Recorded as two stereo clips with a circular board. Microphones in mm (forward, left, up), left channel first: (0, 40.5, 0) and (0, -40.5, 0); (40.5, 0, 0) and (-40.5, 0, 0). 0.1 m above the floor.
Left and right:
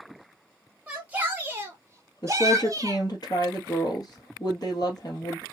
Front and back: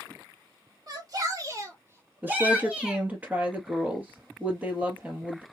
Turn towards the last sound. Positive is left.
turn(degrees=110)